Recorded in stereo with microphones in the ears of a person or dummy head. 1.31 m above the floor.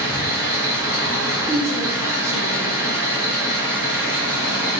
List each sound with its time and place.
0.0 s an engine running: 5° right (ahead or behind), 1.3 m
1.5 s a woman speaking: 15° right (ahead or behind), 0.7 m